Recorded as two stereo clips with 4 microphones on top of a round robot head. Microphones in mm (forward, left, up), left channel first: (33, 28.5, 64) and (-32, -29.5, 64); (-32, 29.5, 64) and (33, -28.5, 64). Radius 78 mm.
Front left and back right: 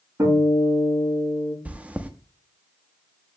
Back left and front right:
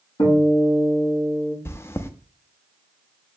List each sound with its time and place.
0.2 s a guitar: 160° left, 6 m
1.6 s chewing: 165° left, 0.9 m